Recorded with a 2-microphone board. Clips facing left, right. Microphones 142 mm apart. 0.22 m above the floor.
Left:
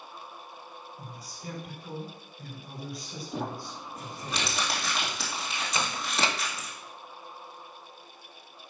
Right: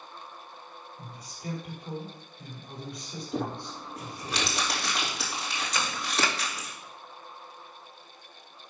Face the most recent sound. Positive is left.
turn(degrees=25)  # may be behind; listen again after turning